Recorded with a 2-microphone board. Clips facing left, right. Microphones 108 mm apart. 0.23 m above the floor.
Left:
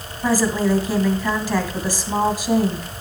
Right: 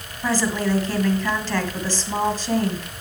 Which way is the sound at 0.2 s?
10° left (ahead or behind).